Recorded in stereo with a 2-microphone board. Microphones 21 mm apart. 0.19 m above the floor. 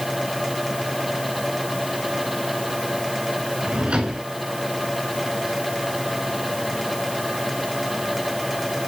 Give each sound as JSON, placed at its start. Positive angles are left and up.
{"t": 3.6, "sound": "a drawer", "side_deg": -65, "distance_m": 9.0}